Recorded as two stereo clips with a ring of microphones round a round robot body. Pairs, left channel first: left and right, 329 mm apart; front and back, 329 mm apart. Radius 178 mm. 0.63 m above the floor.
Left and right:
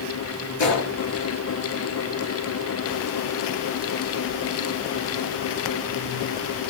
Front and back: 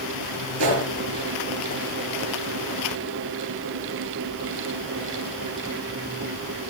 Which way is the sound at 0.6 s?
125° left.